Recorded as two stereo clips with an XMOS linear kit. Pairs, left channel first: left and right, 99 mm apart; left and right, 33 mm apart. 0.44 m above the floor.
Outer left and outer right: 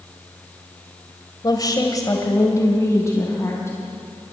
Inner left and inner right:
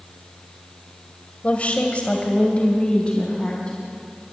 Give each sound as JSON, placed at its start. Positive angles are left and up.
{"t": 1.4, "sound": "a woman speaking", "side_deg": 40, "distance_m": 1.8}